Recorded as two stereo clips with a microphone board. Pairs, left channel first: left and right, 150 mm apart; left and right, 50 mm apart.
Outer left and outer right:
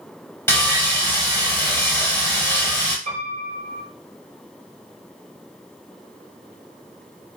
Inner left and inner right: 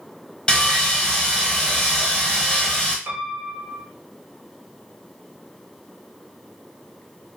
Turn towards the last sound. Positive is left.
turn(degrees=-65)  # may be behind; listen again after turning